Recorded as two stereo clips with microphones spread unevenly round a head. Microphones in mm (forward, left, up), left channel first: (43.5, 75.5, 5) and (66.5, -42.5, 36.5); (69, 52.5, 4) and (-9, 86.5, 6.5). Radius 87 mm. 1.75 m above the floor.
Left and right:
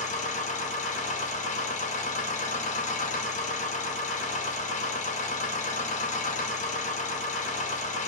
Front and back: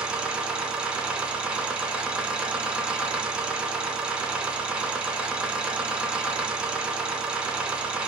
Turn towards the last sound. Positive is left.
turn(degrees=75)